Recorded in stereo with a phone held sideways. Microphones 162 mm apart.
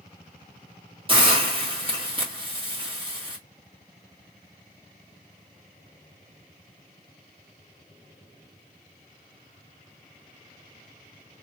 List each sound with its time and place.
1.1 s a hiss: 30° right (ahead or behind), 1.9 m